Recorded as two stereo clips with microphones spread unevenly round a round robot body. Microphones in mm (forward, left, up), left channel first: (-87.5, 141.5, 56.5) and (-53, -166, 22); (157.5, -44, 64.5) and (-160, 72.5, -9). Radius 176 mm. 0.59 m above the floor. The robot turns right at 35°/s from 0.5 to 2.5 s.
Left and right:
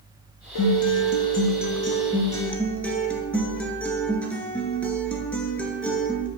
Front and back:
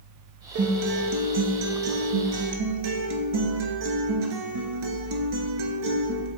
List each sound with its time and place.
0.6 s a guitar: 110° left, 1.6 m; by 6.3 s straight behind, 1.6 m